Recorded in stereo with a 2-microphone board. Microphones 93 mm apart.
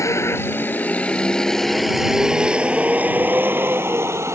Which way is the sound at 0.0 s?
30° left (ahead or behind).